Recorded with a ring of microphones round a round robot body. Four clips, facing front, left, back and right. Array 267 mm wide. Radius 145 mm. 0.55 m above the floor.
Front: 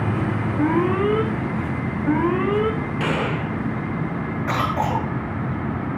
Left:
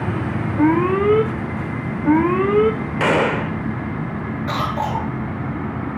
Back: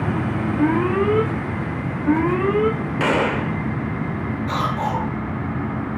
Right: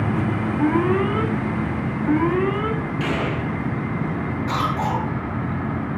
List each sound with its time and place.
0.6 s an alarm: 95° left, 3.5 m
3.0 s a gunshot: 110° left, 0.9 m
4.5 s a cough: 30° left, 9 m